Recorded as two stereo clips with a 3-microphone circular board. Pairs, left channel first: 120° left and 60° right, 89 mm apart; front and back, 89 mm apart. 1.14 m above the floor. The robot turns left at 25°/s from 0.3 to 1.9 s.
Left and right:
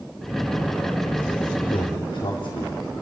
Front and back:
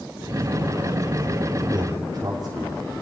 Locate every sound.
1.7 s a man speaking: 135° left, 3.5 m; by 2.8 s 130° left, 3.5 m